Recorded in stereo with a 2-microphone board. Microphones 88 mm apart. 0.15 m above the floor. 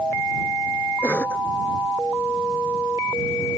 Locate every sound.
1.0 s a cough: 15° left (ahead or behind)